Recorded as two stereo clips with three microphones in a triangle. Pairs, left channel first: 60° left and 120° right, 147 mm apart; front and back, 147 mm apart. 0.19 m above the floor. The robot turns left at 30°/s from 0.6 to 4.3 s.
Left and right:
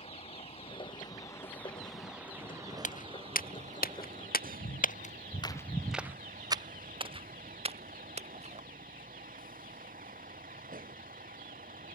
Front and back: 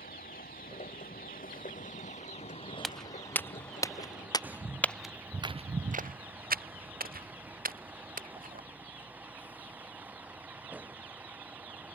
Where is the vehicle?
10° left; by 12.0 s 100° right.